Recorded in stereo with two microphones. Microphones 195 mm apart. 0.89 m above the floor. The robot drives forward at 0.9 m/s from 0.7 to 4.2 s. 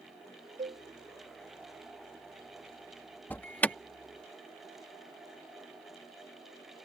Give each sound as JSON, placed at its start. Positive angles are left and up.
{"t": 0.6, "sound": "a cowbell", "side_deg": -40}
{"t": 3.3, "sound": "an alarm", "side_deg": 10}